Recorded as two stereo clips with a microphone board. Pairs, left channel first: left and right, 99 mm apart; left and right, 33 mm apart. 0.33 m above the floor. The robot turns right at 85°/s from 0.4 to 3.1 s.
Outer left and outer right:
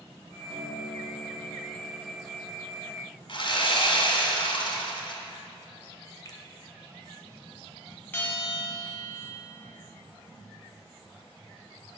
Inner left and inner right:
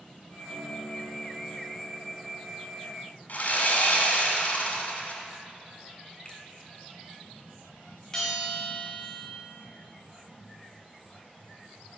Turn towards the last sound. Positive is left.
turn(degrees=20)  # may be behind; listen again after turning